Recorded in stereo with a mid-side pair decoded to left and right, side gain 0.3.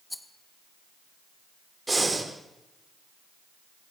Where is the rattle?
15° left, 1.9 m.